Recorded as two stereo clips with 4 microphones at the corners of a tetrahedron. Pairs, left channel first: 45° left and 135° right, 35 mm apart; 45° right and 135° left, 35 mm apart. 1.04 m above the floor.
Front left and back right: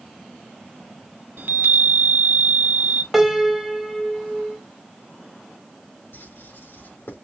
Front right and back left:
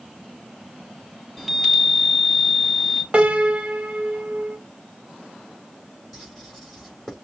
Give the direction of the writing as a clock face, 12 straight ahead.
11 o'clock.